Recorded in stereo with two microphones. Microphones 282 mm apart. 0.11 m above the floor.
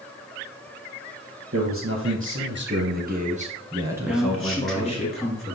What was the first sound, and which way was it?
A man speaking, 50° right (ahead or behind).